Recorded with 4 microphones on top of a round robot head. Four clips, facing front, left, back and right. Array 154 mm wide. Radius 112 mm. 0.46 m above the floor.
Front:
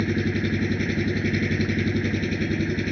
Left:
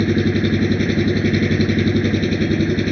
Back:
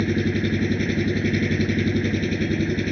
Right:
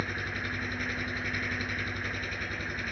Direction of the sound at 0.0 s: 95° left.